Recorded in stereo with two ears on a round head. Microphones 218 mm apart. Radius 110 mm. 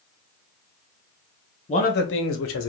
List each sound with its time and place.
1.7 s a man speaking: 25° left (ahead or behind), 0.8 m; by 2.7 s 55° left (ahead or behind), 0.9 m